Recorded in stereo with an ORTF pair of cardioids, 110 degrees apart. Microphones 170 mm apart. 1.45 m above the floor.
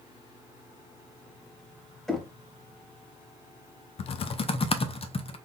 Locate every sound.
2.1 s knocking: 5° left, 0.9 m
4.0 s typing on a keyboard: 35° left, 0.6 m